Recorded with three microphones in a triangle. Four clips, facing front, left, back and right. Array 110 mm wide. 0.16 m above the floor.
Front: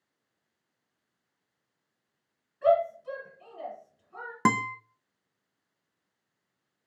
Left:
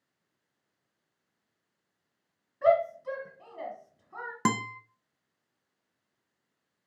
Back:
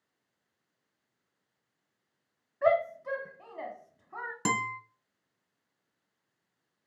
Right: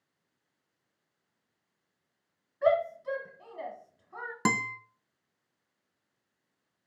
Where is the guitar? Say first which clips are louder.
Left 1 dB, front 6 dB; 5° left, 0.9 m.